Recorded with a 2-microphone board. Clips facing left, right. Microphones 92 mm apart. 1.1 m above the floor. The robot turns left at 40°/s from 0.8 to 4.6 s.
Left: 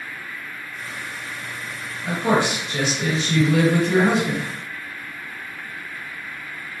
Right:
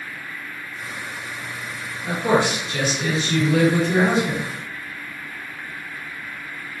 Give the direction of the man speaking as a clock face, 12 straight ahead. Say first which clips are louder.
Right 1 dB; 6 o'clock.